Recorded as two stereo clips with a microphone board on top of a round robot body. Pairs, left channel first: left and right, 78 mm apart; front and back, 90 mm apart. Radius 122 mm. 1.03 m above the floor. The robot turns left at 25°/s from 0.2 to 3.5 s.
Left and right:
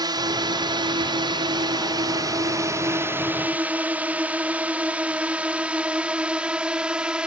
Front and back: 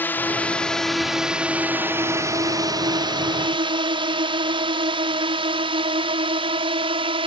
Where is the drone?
70° right; by 7.3 s 170° right.